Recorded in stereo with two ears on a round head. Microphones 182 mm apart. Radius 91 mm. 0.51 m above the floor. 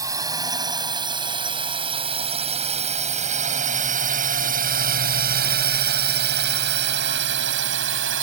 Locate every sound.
0.0 s a drone: 15° right (ahead or behind); by 8.2 s 65° right (ahead or behind)